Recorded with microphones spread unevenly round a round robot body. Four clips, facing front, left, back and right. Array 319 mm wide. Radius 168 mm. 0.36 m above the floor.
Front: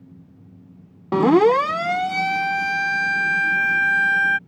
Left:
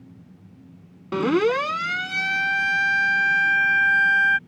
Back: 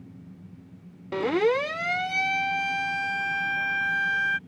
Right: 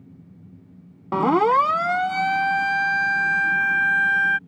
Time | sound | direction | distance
1.1 | a siren | 10° right | ?